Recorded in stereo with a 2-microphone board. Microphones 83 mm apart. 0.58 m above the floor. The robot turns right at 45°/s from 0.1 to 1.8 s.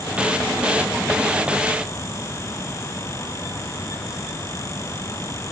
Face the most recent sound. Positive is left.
No sound to turn to.